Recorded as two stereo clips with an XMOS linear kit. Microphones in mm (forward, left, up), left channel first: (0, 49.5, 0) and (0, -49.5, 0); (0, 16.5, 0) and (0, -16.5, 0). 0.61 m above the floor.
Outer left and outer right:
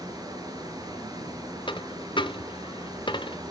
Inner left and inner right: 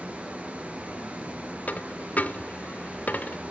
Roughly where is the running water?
Right.